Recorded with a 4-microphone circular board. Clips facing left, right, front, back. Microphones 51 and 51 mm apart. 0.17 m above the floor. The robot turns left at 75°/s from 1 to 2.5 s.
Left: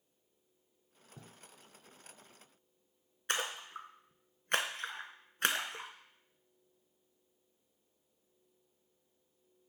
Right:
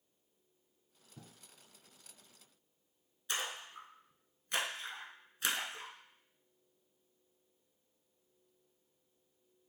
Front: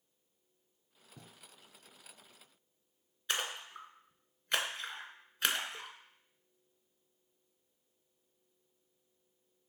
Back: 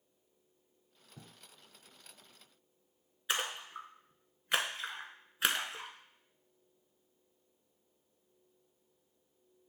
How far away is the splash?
About 0.7 m.